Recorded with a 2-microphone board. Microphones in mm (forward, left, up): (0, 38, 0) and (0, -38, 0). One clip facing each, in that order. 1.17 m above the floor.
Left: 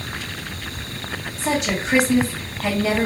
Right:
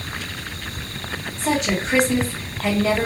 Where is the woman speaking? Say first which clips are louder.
Right 1 dB; centre (ahead or behind), 1.8 m.